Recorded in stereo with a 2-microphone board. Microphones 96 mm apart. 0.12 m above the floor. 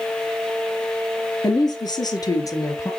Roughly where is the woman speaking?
Left.